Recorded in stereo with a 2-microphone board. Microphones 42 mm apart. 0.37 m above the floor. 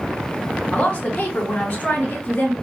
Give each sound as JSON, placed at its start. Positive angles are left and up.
{"t": 0.7, "sound": "a woman speaking", "side_deg": 40, "distance_m": 3.0}